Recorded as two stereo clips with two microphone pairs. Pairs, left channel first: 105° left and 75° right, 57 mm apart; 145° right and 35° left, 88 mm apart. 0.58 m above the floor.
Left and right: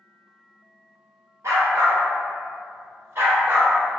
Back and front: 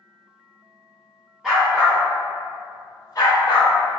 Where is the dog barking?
55° right, 1.4 m; by 3.7 s 120° right, 1.3 m.